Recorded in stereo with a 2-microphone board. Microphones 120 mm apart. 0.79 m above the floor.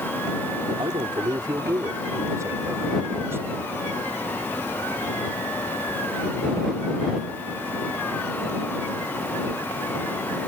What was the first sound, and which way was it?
A man speaking, 45° right (ahead or behind).